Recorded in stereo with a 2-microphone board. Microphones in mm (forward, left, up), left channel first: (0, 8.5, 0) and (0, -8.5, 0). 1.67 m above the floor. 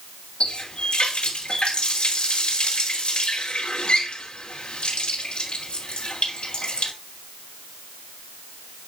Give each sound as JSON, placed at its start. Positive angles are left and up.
{"t": 0.4, "sound": "a running tap", "side_deg": 75, "distance_m": 3.0}